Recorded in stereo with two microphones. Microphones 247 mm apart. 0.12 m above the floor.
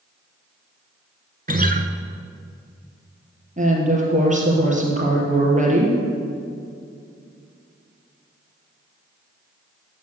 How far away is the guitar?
About 0.9 m.